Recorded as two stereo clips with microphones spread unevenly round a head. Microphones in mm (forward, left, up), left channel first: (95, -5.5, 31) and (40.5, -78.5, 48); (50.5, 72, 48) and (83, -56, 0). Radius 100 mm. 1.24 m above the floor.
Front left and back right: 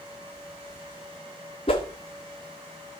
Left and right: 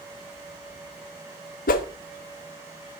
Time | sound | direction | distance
1.7 | a whoosh | 105° left | 0.8 m